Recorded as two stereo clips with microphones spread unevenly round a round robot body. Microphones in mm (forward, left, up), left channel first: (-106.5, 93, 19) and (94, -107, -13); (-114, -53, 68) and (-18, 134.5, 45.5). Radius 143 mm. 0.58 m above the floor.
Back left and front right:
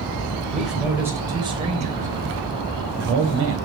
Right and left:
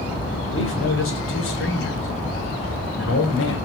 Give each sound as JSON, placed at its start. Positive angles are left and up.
{"t": 0.5, "sound": "a man speaking", "azimuth_deg": -135, "distance_m": 3.0}